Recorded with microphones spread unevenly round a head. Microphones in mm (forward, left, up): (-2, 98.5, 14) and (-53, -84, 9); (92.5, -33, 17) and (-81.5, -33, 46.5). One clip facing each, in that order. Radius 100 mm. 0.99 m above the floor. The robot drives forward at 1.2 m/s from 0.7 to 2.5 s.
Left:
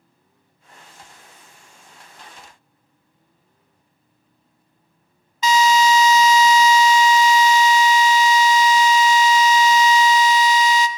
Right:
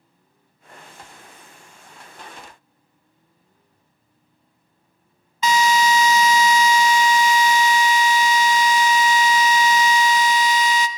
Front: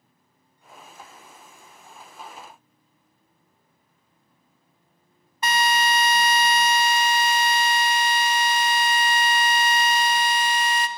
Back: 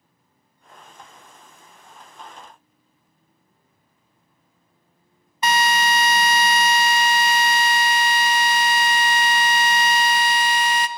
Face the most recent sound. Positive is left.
turn(degrees=-150)